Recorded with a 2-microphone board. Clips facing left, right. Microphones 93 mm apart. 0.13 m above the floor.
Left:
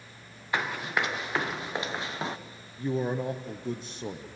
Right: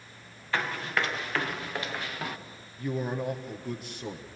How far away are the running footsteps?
About 2.5 m.